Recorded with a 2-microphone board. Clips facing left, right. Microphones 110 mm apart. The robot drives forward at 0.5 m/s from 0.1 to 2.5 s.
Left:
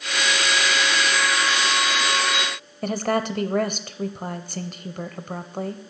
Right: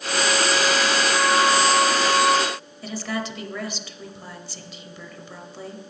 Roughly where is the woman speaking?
Left.